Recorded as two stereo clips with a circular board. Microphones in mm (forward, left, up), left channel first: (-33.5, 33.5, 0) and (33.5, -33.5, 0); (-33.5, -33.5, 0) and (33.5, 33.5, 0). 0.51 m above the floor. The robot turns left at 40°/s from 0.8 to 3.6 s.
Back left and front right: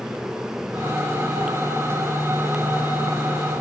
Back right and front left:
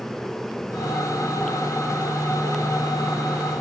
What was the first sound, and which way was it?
Only background noise.